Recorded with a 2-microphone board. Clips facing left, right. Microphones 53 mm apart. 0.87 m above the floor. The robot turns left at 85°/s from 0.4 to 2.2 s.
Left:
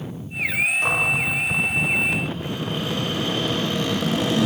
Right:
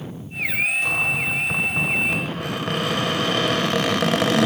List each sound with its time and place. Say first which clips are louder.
0.8 s a cupboard door: left 1 dB; 50° left, 5 m; by 4.5 s 70° right, 5 m